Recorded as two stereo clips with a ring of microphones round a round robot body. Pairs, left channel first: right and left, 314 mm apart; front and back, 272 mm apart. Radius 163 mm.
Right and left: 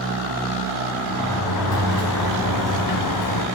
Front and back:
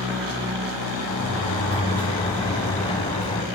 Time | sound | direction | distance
1.1 | a sliding door | 75° right | 3.5 m